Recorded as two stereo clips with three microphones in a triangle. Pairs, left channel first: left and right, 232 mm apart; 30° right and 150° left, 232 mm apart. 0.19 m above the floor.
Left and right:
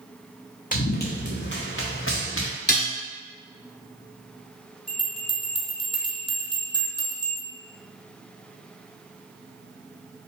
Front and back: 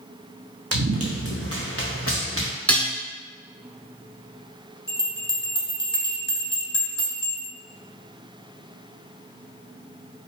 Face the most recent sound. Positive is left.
turn(degrees=35)